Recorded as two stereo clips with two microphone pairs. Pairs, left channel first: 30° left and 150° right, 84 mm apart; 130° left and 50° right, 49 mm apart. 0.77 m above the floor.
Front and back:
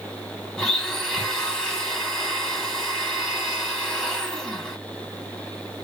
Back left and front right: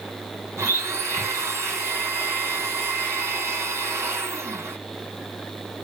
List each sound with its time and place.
0.6 s a blender: 50° right, 1.3 m